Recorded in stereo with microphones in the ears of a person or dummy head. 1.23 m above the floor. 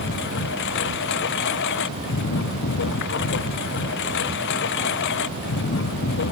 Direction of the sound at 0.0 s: 60° left (ahead or behind).